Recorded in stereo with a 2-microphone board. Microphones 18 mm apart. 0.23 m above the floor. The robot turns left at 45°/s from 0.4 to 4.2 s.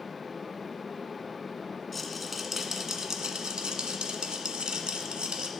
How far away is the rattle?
About 1.3 m.